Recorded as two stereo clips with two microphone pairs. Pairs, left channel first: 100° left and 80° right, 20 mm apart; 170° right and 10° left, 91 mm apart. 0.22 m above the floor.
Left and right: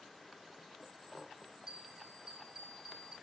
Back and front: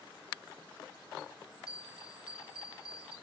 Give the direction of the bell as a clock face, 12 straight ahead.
4 o'clock.